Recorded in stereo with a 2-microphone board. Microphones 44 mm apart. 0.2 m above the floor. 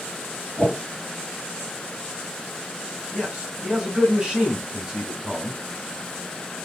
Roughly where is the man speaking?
Centre.